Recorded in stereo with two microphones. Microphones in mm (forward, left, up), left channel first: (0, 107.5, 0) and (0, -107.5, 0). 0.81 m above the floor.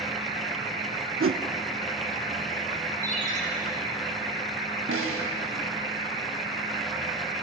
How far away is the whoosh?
About 0.6 m.